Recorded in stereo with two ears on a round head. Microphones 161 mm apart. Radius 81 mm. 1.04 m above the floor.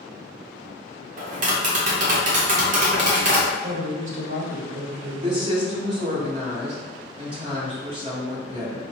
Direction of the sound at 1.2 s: 45° right (ahead or behind).